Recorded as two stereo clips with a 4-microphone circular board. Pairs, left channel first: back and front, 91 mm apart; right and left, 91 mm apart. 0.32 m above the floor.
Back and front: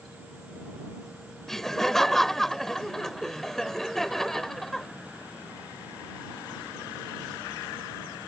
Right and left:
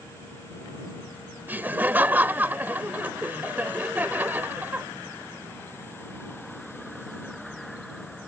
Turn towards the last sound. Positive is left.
turn(degrees=100)